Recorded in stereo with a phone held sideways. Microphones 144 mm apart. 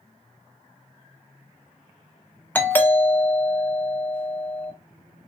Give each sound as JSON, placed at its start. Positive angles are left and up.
{"t": 2.5, "sound": "a doorbell", "side_deg": 15, "distance_m": 1.0}